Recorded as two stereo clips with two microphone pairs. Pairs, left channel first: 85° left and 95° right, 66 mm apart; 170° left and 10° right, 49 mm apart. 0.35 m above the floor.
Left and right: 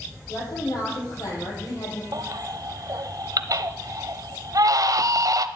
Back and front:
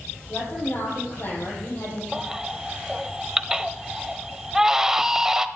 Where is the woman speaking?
120° left, 8 m.